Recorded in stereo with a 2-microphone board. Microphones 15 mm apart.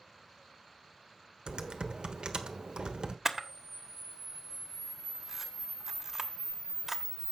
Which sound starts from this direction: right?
Typing on a keyboard, at 1.5 s.